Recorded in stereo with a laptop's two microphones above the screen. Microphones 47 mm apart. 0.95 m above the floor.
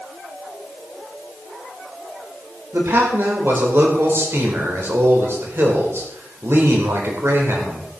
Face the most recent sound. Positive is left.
turn(degrees=-65)  # may be behind; listen again after turning